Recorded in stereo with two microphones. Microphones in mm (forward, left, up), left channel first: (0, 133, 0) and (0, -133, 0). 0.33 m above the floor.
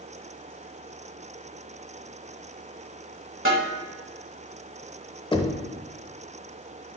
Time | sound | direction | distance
3.5 | a snare drum | 50° right (ahead or behind) | 1.5 m
5.3 | knocking | 20° left (ahead or behind) | 0.6 m